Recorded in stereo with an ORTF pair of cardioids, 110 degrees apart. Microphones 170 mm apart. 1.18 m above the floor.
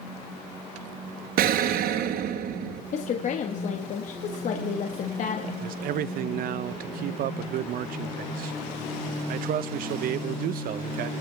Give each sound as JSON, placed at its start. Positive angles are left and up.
{"t": 1.4, "sound": "an explosion", "azimuth_deg": -70, "distance_m": 1.1}
{"t": 2.9, "sound": "a woman speaking", "azimuth_deg": 50, "distance_m": 1.5}
{"t": 5.6, "sound": "a man speaking", "azimuth_deg": -65, "distance_m": 0.7}